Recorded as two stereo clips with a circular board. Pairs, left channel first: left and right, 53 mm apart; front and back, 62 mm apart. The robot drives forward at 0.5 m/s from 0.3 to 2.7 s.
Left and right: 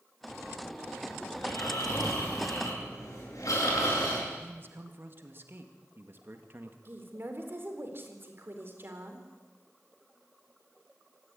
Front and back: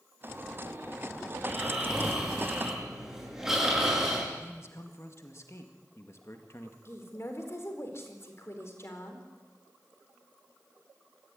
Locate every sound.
1.4 s snoring: 95° left, 9 m
4.3 s a man speaking: 45° right, 2.0 m
6.8 s a woman speaking: 45° right, 4 m